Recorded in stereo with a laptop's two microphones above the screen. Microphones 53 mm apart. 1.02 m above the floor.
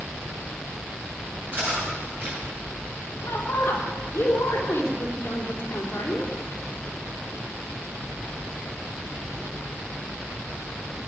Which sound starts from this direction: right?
Cutlery clinking, at 1.5 s.